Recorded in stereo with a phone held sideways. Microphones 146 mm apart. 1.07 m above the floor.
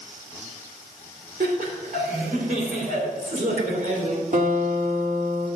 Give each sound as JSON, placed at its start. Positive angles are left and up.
{"t": 1.4, "sound": "laughter", "side_deg": -70, "distance_m": 3.0}
{"t": 4.3, "sound": "a guitar", "side_deg": -70, "distance_m": 2.0}